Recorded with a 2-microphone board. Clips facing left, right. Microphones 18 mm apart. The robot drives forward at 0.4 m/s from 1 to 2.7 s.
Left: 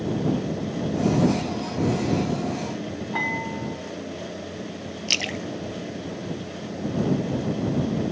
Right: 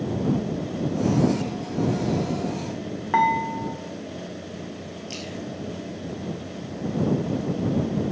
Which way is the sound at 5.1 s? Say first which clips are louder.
Left 10 dB; 60° left (ahead or behind).